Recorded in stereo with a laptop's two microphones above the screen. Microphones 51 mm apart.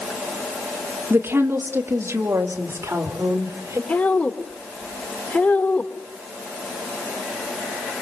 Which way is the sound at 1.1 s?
50° right (ahead or behind).